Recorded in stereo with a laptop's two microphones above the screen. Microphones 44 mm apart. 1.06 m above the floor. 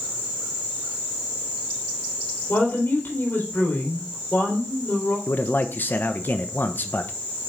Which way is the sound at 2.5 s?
65° left (ahead or behind).